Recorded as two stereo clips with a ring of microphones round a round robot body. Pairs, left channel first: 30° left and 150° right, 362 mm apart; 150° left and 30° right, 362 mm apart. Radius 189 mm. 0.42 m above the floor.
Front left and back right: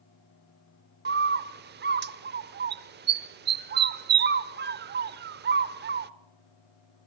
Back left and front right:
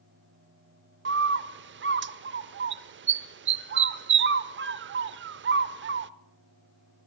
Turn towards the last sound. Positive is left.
turn(degrees=-90)